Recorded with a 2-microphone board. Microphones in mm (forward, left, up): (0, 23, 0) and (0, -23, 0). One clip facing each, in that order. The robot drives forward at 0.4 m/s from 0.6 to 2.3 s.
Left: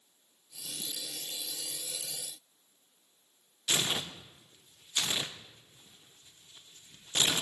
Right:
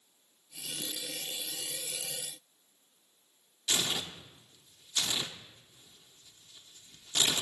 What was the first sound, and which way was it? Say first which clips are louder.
Tearing paper: left 1 dB; 25° left (ahead or behind).